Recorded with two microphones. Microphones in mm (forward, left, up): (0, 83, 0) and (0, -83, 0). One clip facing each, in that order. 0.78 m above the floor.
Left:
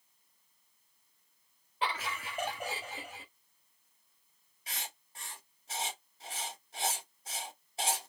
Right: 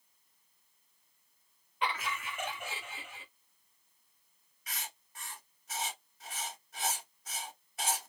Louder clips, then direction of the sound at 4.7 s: Even; 30° left (ahead or behind).